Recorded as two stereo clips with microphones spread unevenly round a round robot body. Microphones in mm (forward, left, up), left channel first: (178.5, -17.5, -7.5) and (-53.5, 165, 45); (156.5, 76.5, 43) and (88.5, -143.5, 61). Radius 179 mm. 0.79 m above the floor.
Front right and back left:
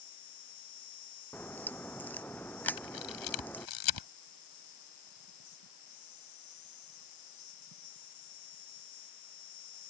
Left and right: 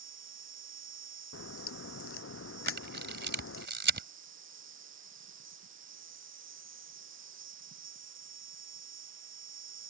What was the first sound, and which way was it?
An insect, 75° right.